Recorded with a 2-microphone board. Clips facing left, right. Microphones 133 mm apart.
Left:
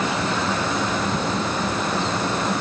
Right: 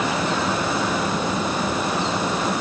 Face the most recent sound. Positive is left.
No sound to turn to.